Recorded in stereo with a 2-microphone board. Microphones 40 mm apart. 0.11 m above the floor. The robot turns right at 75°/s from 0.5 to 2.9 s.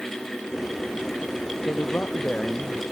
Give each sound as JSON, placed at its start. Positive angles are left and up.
{"t": 1.6, "sound": "a man speaking", "azimuth_deg": 100}